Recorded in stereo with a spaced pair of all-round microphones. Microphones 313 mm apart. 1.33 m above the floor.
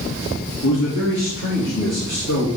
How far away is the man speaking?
About 2.5 m.